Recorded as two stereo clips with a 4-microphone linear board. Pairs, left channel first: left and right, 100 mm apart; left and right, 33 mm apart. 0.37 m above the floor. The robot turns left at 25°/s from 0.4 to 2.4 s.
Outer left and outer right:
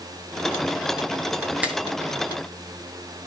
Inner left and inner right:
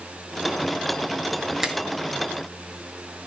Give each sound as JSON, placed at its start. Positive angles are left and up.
{"t": 1.6, "sound": "a finger snap", "side_deg": -15, "distance_m": 1.3}